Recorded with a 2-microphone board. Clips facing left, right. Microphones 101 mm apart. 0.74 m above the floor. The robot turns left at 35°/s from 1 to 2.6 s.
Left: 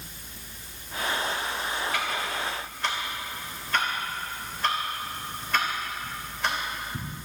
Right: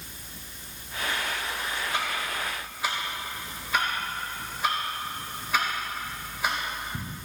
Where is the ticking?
30° right (ahead or behind), 3.5 m; by 7.1 s 5° right (ahead or behind), 3.5 m.